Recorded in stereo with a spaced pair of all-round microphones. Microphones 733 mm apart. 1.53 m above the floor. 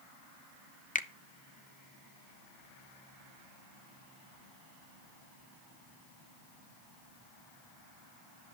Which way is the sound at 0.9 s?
10° left (ahead or behind).